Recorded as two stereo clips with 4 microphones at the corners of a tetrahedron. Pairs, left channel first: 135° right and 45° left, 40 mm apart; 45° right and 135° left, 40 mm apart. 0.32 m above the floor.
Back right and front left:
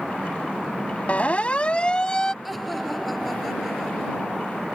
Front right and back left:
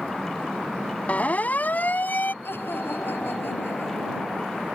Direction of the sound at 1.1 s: 90° right.